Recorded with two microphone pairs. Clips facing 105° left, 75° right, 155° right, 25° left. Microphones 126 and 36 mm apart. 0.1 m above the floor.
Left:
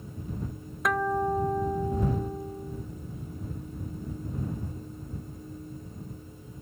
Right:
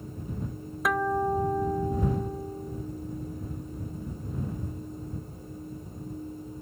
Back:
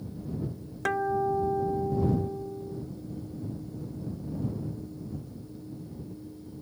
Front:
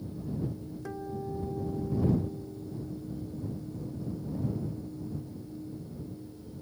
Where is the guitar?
165° right.